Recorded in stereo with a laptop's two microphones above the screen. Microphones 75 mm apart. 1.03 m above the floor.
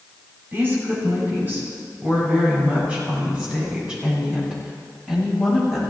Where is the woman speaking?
30° right (ahead or behind), 7 m; by 5.8 s 10° right (ahead or behind), 8 m.